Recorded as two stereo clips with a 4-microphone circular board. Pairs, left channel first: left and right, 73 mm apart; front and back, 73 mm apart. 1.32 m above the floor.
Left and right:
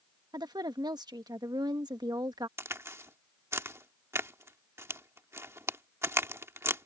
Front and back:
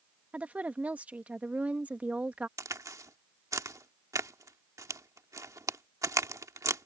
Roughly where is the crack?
Behind right.